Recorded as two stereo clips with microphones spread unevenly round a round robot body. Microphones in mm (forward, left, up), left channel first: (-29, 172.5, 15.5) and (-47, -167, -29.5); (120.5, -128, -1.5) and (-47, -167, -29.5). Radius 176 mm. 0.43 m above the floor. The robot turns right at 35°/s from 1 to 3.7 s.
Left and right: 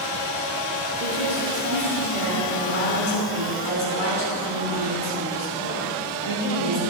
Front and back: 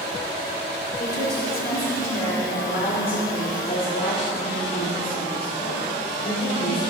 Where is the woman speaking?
30° right, 4 m; by 6.8 s 65° left, 4 m.